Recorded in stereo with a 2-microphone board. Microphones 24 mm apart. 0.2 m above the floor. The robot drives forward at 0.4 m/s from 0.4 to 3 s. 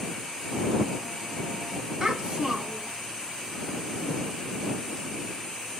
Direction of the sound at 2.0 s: 30° right (ahead or behind).